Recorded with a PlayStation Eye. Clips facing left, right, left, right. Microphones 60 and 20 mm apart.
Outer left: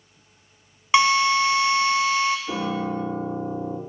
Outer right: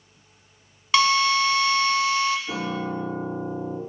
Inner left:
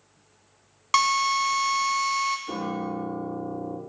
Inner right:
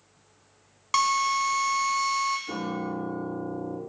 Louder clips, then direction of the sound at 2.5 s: Outer left 2 dB, inner left 1 dB; 10° left (ahead or behind).